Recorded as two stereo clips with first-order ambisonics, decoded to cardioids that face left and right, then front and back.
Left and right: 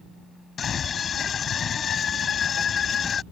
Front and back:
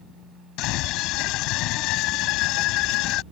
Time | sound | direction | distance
0.6 | a scream | 25° left | ?